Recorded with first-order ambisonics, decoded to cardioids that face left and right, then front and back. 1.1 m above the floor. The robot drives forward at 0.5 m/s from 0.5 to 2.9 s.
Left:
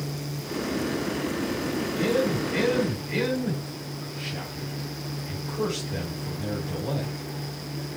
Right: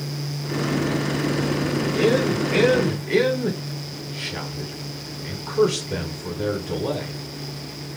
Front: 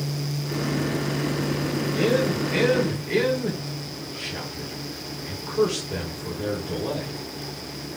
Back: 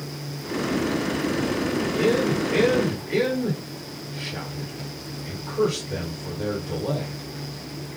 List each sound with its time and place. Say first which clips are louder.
1.9 s a man speaking: right 5 dB, even; 95° right, 4 m; by 7.1 s 100° right, 4 m